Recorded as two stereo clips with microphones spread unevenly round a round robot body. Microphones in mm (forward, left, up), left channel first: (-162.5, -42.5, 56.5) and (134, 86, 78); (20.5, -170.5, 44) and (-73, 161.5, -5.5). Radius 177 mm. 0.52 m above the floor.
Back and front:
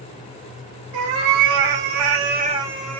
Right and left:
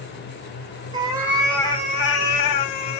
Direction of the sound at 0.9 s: 30° left.